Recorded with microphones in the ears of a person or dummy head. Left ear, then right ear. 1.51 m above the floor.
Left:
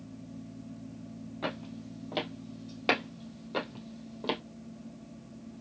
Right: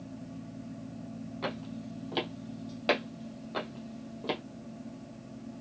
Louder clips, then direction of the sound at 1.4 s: Even; 10° right (ahead or behind).